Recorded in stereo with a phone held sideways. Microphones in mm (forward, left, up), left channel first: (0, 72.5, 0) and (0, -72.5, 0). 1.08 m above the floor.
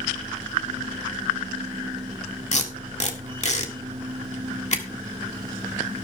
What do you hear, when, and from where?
0.0 s a machine running: 35° right (ahead or behind), 1.6 m
2.5 s tape being pulled: 50° left (ahead or behind), 1.7 m